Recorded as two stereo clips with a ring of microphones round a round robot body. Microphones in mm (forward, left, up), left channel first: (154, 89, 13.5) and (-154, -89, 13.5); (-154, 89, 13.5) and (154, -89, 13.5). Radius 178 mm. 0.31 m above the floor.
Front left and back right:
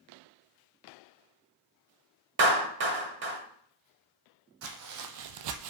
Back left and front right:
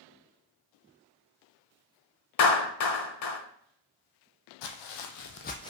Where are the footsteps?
160° left, 0.6 m; by 5.7 s 130° right, 0.5 m.